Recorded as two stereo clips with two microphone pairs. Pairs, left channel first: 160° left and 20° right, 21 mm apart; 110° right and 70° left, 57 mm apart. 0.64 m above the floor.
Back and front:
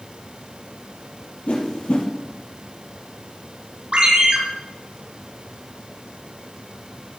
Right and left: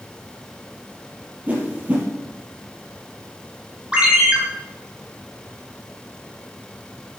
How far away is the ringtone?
About 3.5 m.